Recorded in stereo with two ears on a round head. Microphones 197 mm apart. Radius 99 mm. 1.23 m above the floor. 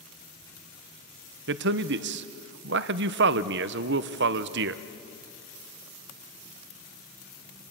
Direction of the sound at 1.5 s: 55° right (ahead or behind).